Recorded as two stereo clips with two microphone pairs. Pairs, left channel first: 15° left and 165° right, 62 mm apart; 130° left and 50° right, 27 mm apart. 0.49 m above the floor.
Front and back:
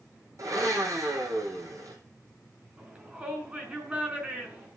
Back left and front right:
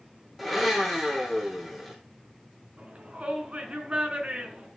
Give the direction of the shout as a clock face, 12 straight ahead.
3 o'clock.